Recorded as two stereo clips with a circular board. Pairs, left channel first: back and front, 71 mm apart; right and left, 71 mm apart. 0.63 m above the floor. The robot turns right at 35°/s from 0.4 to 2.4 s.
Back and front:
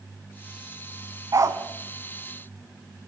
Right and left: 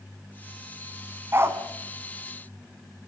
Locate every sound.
1.3 s a dog barking: 35° left, 1.9 m; by 1.6 s 45° left, 1.9 m